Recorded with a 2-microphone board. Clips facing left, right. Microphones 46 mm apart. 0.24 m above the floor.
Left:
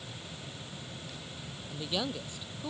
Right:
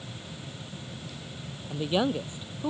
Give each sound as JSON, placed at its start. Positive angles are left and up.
{"t": 1.7, "sound": "a man speaking", "side_deg": -25}